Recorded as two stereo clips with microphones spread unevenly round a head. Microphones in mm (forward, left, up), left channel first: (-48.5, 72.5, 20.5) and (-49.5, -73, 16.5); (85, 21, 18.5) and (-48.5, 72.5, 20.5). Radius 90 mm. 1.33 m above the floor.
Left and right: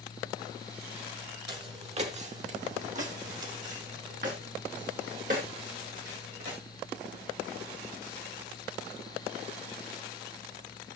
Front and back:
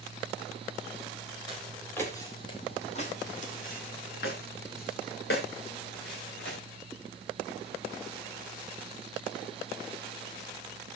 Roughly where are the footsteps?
Behind right.